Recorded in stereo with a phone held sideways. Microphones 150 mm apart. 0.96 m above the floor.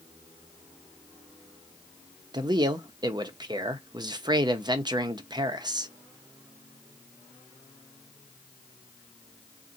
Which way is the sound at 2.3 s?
30° right (ahead or behind).